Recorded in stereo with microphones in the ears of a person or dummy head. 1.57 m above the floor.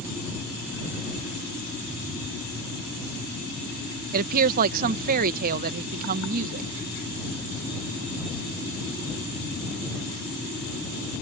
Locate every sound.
4.1 s a woman speaking: 50° right (ahead or behind)